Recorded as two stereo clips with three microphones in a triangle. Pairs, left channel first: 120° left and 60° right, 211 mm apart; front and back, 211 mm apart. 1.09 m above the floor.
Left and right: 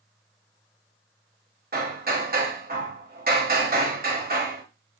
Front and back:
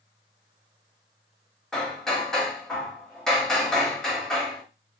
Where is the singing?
I don't hear singing.